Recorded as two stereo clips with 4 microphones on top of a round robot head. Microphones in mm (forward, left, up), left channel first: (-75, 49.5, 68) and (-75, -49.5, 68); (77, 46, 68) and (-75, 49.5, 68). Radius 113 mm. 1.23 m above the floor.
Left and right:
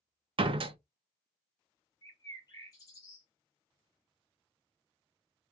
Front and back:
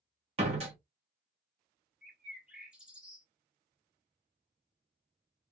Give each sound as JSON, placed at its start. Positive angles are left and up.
{"t": 0.4, "sound": "a door slam", "azimuth_deg": -120, "distance_m": 0.7}
{"t": 2.0, "sound": "a bird", "azimuth_deg": 100, "distance_m": 1.2}